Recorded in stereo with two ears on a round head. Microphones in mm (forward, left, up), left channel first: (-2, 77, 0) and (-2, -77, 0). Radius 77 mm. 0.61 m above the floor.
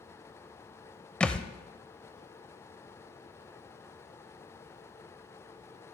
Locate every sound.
1.2 s a thud: 5° left (ahead or behind), 0.5 m